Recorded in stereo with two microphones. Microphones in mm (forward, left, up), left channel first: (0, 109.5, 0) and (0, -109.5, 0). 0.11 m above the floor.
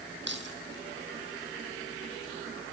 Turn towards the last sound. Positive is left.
turn(degrees=-50)  # may be behind; listen again after turning